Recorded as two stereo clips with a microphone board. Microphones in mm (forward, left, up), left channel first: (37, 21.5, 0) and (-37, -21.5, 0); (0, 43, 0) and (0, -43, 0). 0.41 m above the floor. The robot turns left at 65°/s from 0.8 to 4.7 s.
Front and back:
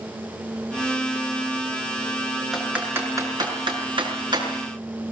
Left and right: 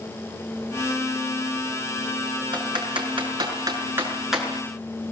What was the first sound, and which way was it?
Typing on a keyboard, 60° right.